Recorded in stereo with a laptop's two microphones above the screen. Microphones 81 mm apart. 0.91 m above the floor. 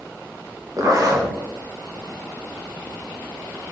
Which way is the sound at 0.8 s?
45° right (ahead or behind).